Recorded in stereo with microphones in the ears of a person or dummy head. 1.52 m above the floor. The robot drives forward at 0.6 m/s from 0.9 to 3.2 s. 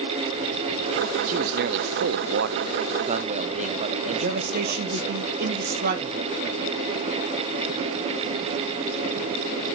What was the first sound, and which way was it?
A man speaking, 40° right (ahead or behind).